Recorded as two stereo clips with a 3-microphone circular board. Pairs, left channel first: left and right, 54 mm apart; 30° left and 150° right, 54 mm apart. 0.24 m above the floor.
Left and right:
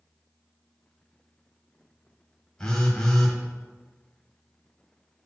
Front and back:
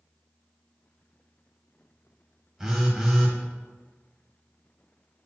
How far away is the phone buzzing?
About 1.7 m.